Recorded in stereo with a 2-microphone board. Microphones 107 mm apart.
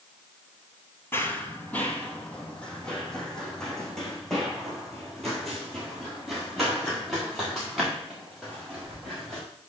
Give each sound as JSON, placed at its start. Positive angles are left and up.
{"t": 1.1, "sound": "running footsteps", "side_deg": 25, "distance_m": 0.9}